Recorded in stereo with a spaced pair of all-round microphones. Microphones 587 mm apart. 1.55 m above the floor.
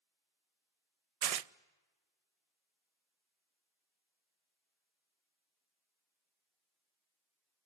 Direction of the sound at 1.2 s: 75° right (ahead or behind).